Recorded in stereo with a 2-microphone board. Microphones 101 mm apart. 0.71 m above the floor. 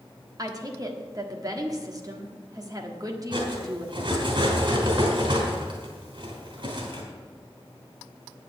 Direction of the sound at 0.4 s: 35° right (ahead or behind).